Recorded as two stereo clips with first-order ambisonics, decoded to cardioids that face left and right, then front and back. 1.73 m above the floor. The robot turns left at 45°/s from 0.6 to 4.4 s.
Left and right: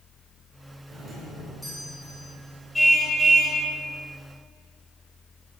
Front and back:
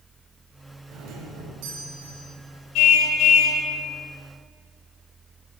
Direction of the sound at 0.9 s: 145° right.